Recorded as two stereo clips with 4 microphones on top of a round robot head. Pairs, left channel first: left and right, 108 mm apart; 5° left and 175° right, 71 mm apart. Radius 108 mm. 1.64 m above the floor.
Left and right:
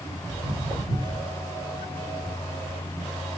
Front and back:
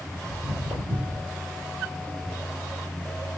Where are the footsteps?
165° left, 2.5 m; by 1.3 s 160° left, 2 m.